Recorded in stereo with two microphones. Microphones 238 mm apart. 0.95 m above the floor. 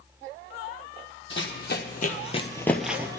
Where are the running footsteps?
55° left (ahead or behind), 1.5 m; by 3.2 s 20° right (ahead or behind), 0.9 m.